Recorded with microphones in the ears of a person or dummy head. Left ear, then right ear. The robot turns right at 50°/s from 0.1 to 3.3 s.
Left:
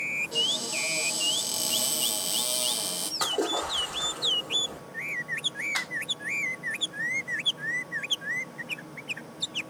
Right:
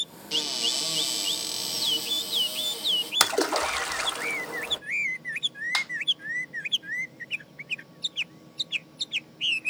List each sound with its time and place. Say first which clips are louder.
0.3 s a cupboard door: right 5 dB; 60° right, 0.9 m; by 3.1 s 80° left, 0.9 m
3.2 s a splash: right 1 dB; 70° right (ahead or behind), 0.6 m; by 4.8 s 75° right (ahead or behind), 0.6 m
5.7 s a finger snap: right 7 dB; 70° right (ahead or behind), 2.5 m